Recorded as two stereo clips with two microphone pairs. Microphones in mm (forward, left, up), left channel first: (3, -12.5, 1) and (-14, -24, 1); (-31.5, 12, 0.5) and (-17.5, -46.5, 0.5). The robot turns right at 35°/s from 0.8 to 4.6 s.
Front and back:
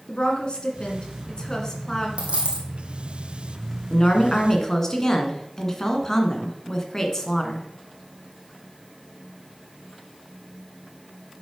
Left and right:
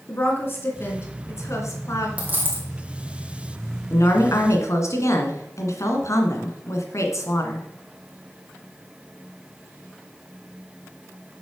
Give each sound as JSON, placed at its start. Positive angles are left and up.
{"t": 0.1, "sound": "a woman speaking", "azimuth_deg": 60, "distance_m": 2.0}
{"t": 2.2, "sound": "a dropped coin", "azimuth_deg": -145, "distance_m": 2.5}
{"t": 3.9, "sound": "a woman speaking", "azimuth_deg": 80, "distance_m": 1.9}